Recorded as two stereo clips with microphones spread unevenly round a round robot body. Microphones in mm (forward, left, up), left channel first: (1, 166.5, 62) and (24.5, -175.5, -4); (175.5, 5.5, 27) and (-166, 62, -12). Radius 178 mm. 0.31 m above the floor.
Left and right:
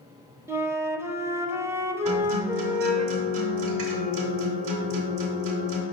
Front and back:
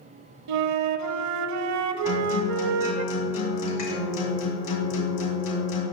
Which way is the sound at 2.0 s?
45° right.